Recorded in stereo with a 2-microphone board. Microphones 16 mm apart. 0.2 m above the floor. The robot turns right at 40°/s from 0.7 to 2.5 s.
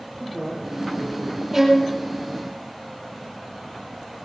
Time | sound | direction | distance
0.2 | a man speaking | 5° left (ahead or behind) | 4.5 m
1.5 | a violin | 20° right (ahead or behind) | 7 m